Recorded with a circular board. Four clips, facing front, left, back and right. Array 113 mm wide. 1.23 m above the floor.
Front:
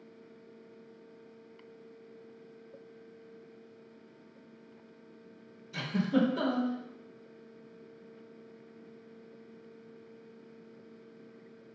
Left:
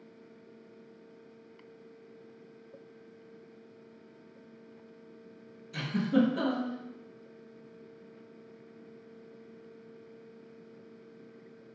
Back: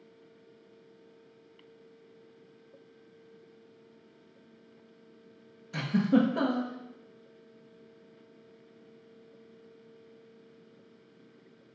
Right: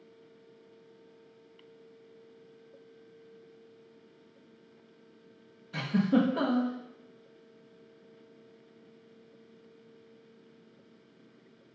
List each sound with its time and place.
5.7 s a giggle: 140° right, 1.4 m